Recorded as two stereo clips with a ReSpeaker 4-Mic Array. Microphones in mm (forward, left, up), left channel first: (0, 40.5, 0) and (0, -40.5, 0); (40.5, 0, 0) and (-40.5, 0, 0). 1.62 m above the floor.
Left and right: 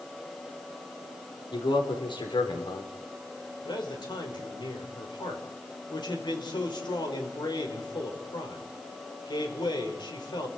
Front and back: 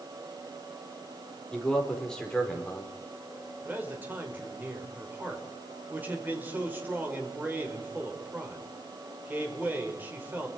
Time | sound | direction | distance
1.5 | a man speaking | 80° left | 4.5 m
3.6 | a man speaking | 115° left | 5.5 m